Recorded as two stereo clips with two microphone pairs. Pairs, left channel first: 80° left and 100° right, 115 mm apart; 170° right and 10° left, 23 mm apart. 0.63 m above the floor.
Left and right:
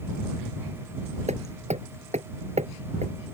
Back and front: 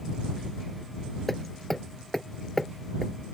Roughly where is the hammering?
Right.